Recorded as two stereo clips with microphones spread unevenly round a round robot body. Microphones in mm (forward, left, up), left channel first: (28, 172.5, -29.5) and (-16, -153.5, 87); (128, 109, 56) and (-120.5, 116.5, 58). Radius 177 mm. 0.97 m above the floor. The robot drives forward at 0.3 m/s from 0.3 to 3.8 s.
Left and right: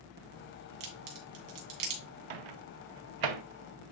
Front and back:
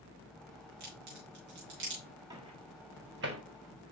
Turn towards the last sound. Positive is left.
turn(degrees=-135)